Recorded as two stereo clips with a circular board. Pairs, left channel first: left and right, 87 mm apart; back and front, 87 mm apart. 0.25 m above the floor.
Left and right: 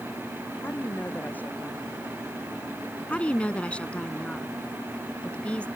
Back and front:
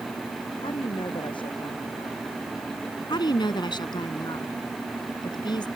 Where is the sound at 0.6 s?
160° left; by 2.4 s 165° left.